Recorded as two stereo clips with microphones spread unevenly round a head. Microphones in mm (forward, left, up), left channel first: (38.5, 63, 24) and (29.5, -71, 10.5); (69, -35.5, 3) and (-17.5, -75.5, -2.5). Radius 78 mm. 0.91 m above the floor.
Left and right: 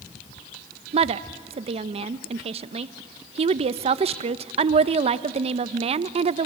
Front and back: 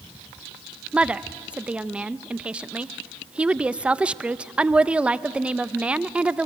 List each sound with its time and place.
0.9 s a woman speaking: 80° right, 0.6 m